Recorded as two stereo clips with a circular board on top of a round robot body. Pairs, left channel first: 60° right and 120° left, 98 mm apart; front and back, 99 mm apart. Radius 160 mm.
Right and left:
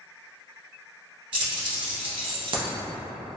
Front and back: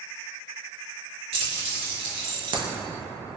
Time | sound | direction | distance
1.3 | keys jangling | 160° left | 1.5 m